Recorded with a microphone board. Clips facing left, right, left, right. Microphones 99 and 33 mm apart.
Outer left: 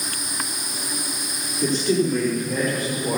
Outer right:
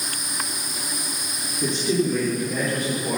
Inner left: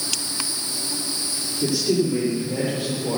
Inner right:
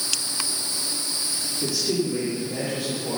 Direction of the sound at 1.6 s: 5° right (ahead or behind).